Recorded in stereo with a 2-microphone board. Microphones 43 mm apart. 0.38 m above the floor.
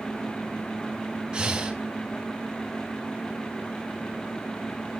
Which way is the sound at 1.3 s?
20° right (ahead or behind).